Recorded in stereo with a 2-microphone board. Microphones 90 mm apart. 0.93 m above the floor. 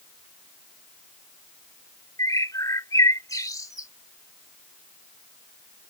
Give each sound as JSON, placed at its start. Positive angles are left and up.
{"t": 2.2, "sound": "a bird", "side_deg": 40}